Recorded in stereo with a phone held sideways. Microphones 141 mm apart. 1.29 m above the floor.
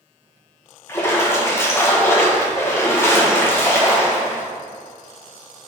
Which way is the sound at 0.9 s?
15° left (ahead or behind).